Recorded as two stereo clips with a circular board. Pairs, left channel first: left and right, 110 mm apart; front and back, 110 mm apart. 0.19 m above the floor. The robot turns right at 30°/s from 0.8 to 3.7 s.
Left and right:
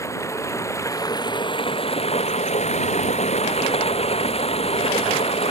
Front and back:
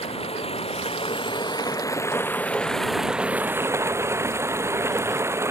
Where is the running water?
25° left; by 5.5 s 115° left.